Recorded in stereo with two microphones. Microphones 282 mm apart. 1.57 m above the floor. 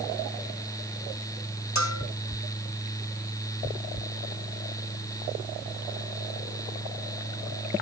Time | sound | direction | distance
1.8 | a bell | 70° left (ahead or behind) | 3 m